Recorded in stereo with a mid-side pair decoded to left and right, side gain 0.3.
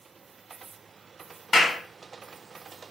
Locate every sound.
1.5 s a clap: 45° left, 1.3 m